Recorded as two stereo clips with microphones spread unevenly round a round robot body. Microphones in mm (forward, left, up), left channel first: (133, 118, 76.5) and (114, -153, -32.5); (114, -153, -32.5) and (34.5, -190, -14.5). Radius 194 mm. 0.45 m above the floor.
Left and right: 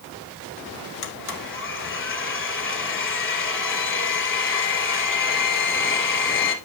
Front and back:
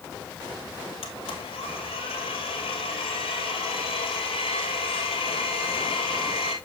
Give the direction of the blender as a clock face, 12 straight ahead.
11 o'clock.